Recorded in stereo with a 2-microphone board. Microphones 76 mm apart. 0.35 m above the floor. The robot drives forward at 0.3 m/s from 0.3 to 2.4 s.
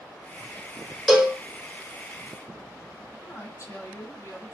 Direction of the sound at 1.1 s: 10° right (ahead or behind).